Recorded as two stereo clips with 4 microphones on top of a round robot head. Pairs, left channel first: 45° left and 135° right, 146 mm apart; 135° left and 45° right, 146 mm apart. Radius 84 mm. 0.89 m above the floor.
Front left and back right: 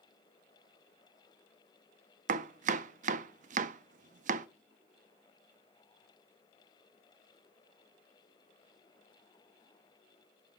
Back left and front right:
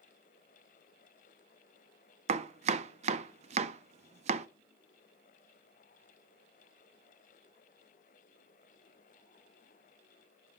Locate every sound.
2.3 s chopping: 95° right, 0.5 m